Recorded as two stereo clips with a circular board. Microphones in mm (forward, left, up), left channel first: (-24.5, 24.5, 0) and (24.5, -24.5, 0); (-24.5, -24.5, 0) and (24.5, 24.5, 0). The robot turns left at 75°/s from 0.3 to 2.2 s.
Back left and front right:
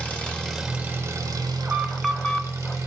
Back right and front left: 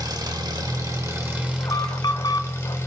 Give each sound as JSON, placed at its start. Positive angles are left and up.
{"t": 0.0, "sound": "an engine running", "azimuth_deg": 60, "distance_m": 1.6}
{"t": 1.6, "sound": "an alarm", "azimuth_deg": -100, "distance_m": 0.9}